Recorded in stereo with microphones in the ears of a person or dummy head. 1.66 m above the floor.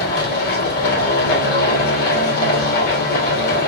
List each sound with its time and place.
0.0 s a machine running: 60° left (ahead or behind), 3 m